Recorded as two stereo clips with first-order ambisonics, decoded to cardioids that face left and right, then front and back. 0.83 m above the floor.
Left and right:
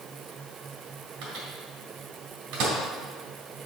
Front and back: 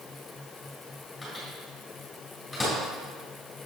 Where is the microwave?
80° right, 3 m.